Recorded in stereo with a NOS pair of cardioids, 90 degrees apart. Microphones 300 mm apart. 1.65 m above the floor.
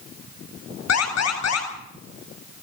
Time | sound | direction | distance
0.9 | an alarm | 55° left | 10 m